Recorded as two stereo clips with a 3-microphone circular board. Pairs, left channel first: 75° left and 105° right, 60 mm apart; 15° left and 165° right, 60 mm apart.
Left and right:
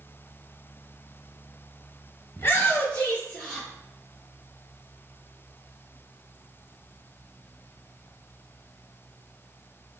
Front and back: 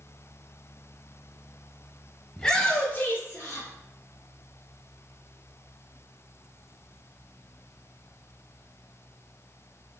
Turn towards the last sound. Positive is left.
turn(degrees=-5)